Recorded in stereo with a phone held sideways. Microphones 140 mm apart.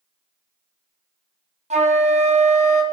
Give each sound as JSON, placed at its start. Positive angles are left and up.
{"t": 1.7, "sound": "a flute", "side_deg": -50, "distance_m": 0.9}